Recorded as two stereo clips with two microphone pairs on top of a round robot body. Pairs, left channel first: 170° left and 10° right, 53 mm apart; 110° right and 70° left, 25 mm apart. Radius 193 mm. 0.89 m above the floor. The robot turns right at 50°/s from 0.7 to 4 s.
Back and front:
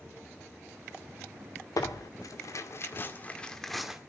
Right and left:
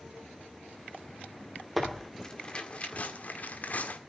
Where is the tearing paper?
160° left, 2.0 m; by 4.0 s 90° right, 2.0 m.